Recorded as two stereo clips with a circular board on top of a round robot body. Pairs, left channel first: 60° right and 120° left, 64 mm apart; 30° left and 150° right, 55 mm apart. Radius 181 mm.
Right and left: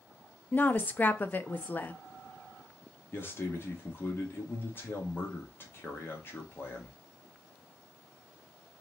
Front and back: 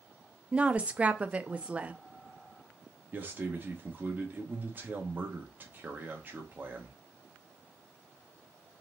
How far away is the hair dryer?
I don't hear a hair dryer.